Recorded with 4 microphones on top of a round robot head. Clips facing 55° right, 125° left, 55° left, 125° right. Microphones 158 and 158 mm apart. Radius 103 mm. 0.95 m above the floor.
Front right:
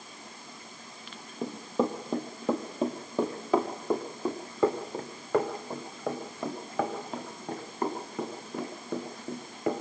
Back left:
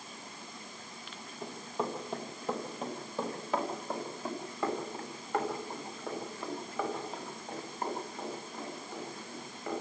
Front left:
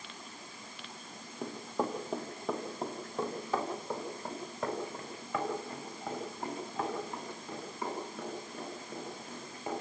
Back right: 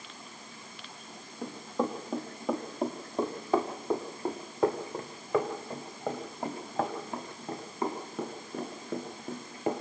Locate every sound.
1.4 s running footsteps: 30° right, 1.8 m; by 9.8 s 80° right, 5.5 m